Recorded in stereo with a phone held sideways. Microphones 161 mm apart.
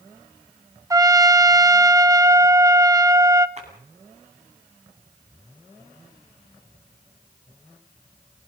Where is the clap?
45° right (ahead or behind), 9 m.